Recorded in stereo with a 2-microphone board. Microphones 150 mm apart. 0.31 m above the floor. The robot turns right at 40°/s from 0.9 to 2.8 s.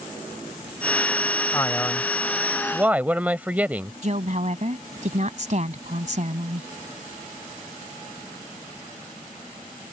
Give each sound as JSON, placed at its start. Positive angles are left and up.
{"t": 1.5, "sound": "a man speaking", "azimuth_deg": 145}
{"t": 4.0, "sound": "a woman speaking", "side_deg": -55}